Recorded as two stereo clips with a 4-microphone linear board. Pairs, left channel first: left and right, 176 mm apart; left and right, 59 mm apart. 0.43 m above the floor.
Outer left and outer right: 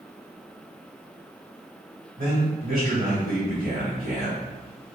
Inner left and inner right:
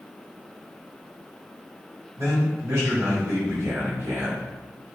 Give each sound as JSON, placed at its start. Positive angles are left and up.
{"t": 2.2, "sound": "a man speaking", "side_deg": -55, "distance_m": 1.6}